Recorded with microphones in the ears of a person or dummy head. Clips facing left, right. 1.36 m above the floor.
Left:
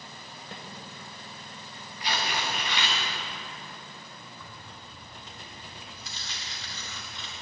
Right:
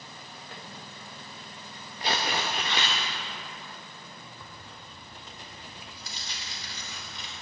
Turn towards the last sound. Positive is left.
turn(degrees=-30)  # may be behind; listen again after turning